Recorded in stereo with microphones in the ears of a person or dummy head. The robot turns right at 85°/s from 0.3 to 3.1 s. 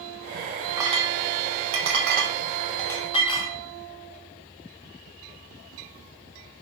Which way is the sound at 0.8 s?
10° right (ahead or behind).